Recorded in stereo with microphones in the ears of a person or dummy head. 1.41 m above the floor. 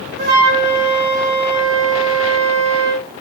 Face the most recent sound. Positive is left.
turn(degrees=-55)  # may be behind; listen again after turning